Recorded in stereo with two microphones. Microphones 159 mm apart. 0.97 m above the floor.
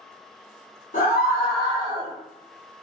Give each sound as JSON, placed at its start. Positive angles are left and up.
{"t": 0.9, "sound": "a scream", "side_deg": 55, "distance_m": 0.8}